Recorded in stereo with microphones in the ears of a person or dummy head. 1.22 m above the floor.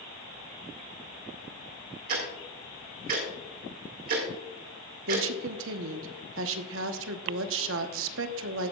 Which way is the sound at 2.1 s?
50° right (ahead or behind).